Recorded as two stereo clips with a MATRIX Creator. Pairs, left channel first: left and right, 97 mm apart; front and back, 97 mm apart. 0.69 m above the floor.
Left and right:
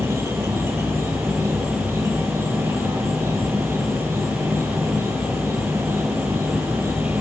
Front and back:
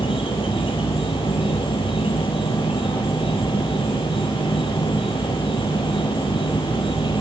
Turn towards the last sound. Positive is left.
turn(degrees=-25)